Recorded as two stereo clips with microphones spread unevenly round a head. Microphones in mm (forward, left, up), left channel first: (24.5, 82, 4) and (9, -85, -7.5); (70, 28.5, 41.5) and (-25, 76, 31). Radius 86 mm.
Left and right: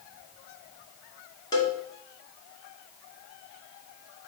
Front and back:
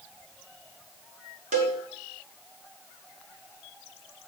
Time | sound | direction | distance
1.5 | a cowbell | 155° left | 2 m